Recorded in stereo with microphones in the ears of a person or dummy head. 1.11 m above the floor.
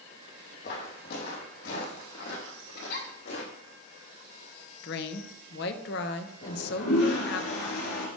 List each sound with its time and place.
0.6 s footsteps: 60° left (ahead or behind), 2.5 m; by 3.8 s 70° left (ahead or behind), 4.5 m
2.8 s a giggle: 55° left (ahead or behind), 4 m
4.8 s a woman speaking: 55° left (ahead or behind), 0.9 m
6.4 s a toilet flushing: 70° left (ahead or behind), 3 m